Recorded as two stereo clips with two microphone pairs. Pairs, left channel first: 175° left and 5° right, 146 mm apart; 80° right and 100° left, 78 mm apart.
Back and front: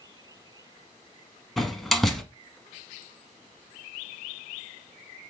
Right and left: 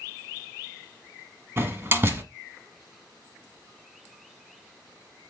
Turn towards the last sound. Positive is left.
turn(degrees=90)